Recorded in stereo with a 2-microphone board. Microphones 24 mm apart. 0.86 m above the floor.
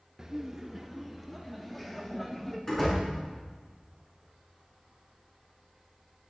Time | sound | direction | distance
0.2 | laughter | 25° right (ahead or behind) | 0.7 m
2.7 | a door slam | 10° left (ahead or behind) | 8.5 m